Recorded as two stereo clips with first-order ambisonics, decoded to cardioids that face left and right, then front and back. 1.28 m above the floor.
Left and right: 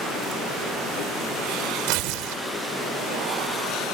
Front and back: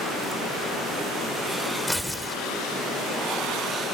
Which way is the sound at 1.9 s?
85° right.